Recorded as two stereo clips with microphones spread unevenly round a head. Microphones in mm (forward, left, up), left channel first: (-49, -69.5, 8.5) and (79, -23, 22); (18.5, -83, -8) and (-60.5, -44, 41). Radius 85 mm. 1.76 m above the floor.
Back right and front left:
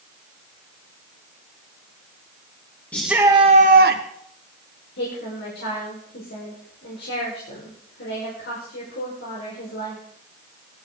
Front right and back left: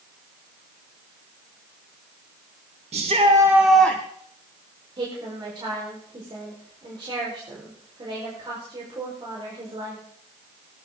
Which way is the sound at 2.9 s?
115° left.